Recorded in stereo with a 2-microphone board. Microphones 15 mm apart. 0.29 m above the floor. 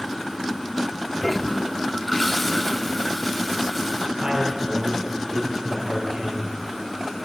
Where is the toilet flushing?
10° left (ahead or behind), 0.9 m.